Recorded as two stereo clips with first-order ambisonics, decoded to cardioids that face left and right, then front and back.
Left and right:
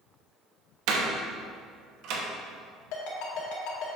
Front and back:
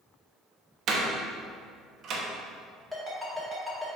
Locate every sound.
0.9 s a door slam: 120° right, 1.0 m
2.9 s a ringtone: 90° left, 2 m